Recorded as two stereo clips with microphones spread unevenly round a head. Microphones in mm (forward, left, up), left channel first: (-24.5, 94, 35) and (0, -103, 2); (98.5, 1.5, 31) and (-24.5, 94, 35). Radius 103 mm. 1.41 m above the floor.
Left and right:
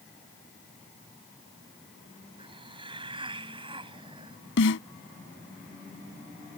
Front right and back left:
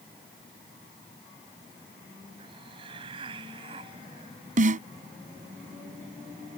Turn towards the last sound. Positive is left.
turn(degrees=110)